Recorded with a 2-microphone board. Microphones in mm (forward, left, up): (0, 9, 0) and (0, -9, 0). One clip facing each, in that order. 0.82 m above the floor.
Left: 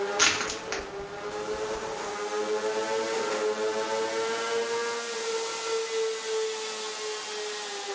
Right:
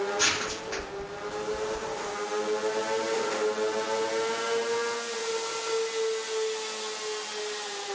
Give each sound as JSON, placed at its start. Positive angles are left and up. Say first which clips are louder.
{"t": 0.2, "sound": "crushing", "louder": "left 5 dB", "side_deg": 60, "distance_m": 1.2}